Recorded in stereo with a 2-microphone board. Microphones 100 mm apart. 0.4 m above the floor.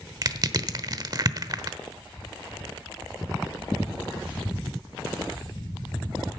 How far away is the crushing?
About 1.0 m.